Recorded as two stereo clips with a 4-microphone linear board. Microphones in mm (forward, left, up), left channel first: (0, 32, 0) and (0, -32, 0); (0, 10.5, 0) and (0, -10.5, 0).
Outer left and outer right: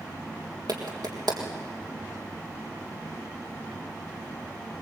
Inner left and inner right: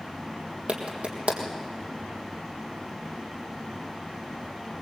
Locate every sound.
0.7 s a clap: 75° right (ahead or behind), 3.5 m